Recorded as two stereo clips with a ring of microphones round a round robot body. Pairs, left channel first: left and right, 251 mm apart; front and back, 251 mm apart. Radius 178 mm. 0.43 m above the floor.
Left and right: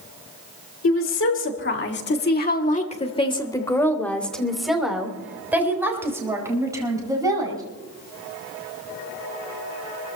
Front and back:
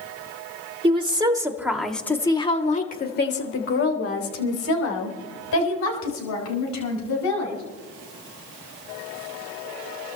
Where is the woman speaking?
120° left, 2.5 m; by 7.6 s 15° right, 5.5 m.